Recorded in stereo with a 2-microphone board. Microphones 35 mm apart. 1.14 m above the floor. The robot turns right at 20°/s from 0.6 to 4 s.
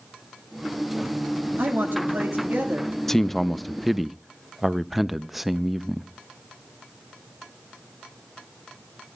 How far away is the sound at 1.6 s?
About 2 m.